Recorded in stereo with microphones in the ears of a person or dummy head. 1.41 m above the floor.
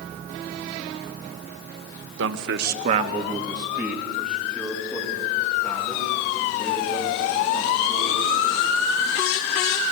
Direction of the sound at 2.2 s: 75° right (ahead or behind).